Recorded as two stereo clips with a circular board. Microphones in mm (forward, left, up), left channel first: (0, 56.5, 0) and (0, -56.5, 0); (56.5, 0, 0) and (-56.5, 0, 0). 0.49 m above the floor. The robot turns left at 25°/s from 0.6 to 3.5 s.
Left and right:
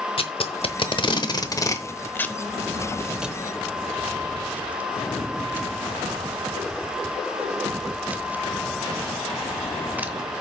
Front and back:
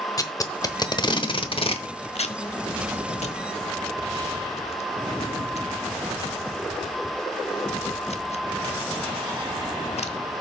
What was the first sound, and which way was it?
Tape being pulled, 55° left.